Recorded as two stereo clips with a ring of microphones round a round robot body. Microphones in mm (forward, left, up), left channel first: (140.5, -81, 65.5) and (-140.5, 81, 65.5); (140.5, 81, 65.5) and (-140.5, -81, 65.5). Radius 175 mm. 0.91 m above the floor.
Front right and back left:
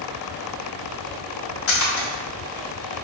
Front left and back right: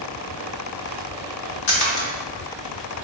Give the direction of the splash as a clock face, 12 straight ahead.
11 o'clock.